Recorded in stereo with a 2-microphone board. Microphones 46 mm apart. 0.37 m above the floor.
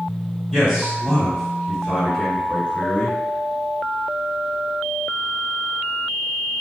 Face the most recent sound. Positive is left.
turn(degrees=15)  # may be behind; listen again after turning